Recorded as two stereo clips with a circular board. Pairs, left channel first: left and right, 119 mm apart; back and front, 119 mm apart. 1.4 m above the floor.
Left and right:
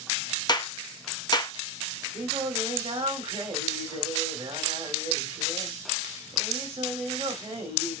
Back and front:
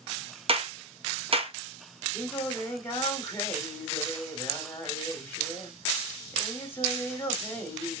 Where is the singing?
115° right, 1.6 m.